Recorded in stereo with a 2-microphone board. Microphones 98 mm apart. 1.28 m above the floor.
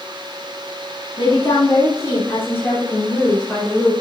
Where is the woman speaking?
55° left (ahead or behind), 3 m; by 3.9 s 5° left (ahead or behind), 5.5 m.